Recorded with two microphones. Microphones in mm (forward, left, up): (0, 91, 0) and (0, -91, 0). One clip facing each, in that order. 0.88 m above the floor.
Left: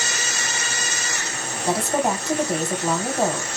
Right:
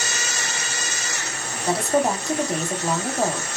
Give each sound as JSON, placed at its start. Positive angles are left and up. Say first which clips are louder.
{"t": 1.7, "sound": "a woman speaking", "louder": "right 1 dB", "side_deg": 0, "distance_m": 0.9}